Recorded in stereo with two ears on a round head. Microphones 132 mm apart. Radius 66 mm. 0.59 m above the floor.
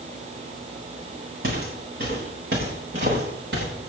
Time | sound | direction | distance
1.4 | footsteps | 75° right (ahead or behind) | 7 m